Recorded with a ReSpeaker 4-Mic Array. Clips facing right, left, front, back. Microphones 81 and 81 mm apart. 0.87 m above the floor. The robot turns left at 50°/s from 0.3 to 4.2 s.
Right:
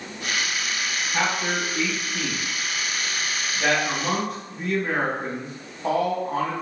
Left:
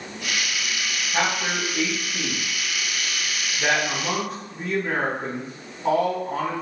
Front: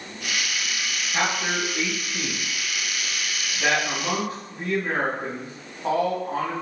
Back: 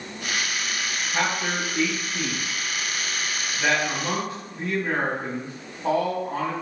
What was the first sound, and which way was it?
A man speaking, 80° left.